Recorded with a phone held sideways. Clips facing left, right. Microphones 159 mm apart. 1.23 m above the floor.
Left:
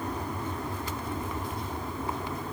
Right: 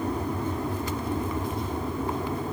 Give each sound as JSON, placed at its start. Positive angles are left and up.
{"t": 0.0, "sound": "an aircraft", "side_deg": -25}